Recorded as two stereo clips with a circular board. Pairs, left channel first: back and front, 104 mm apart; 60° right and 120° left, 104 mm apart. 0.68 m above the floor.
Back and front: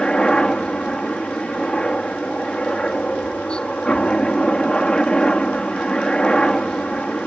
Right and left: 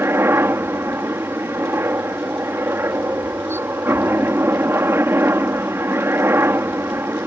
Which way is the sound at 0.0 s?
110° left.